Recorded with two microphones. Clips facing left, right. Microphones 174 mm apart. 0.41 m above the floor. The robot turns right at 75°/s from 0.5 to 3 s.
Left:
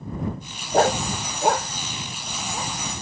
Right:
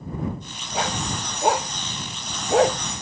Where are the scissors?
No scissors in this recording.